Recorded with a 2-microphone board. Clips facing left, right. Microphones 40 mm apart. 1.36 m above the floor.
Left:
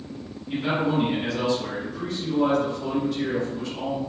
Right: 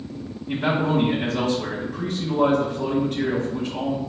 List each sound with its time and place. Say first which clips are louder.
0.5 s a man speaking: right 2 dB; 65° right (ahead or behind), 1.1 m